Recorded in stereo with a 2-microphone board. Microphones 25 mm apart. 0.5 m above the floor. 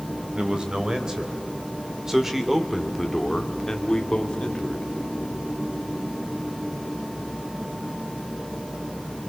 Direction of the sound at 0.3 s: 30° right (ahead or behind).